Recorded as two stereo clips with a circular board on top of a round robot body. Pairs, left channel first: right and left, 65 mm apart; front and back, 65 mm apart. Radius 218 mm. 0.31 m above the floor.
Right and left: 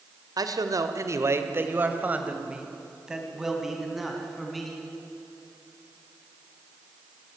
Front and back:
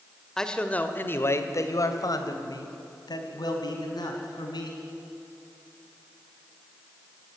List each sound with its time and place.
0.4 s a man speaking: 80° left, 2 m; by 4.8 s straight ahead, 5.5 m